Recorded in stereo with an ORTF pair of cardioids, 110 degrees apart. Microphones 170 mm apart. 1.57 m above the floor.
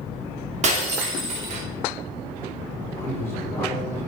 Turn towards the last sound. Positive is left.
turn(degrees=15)